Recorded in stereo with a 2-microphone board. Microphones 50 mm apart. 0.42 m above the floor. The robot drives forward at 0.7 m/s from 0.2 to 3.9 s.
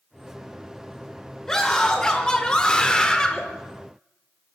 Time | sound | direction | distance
1.5 | a scream | 15° left (ahead or behind) | 1.2 m